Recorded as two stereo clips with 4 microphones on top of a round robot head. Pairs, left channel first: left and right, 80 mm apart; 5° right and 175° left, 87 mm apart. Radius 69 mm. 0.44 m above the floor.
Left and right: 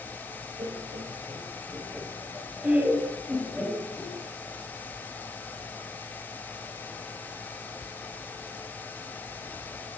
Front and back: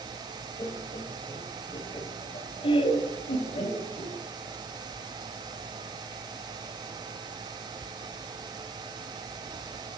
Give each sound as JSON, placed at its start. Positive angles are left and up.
{"t": 0.6, "sound": "laughter", "azimuth_deg": -55, "distance_m": 3.5}